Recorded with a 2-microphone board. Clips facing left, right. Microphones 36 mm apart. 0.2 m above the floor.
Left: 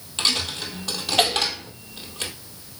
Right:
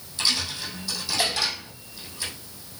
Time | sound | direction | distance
0.2 | a dropped coin | 80° left | 2.5 m